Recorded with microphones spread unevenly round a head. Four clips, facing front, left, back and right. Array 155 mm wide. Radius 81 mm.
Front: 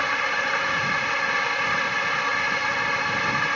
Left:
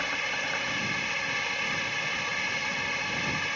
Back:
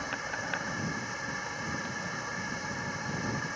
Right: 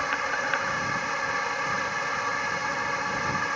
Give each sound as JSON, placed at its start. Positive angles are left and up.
{"t": 0.0, "sound": "a drone", "azimuth_deg": -20}